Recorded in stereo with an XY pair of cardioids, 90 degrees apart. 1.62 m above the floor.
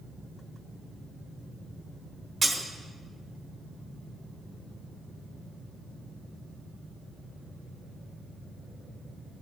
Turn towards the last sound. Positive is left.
turn(degrees=-30)